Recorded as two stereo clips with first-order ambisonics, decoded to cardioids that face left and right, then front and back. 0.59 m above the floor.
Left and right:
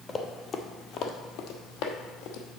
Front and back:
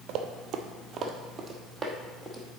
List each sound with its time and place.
0.1 s running footsteps: 160° left, 0.9 m; by 2.6 s 85° left, 1.4 m